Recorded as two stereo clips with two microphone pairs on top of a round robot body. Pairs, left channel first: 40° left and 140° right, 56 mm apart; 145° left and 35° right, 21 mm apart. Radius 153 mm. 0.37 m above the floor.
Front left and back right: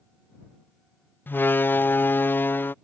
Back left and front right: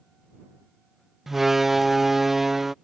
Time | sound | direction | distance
1.3 | a door slam | 25° left | ?